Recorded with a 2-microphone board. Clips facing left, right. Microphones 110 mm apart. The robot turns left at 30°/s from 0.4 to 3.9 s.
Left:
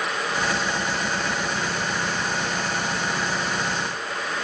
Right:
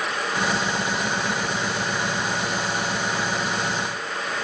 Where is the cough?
No cough in this recording.